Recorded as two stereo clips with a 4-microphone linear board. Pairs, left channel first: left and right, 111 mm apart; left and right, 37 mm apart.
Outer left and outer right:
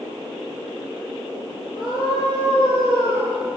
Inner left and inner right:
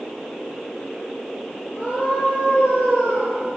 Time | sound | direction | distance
1.8 | a scream | 40° left (ahead or behind) | 8 m